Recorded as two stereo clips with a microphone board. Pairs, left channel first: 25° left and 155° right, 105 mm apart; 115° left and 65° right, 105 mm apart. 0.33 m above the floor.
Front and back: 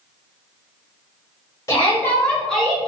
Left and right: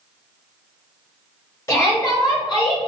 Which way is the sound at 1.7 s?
65° left.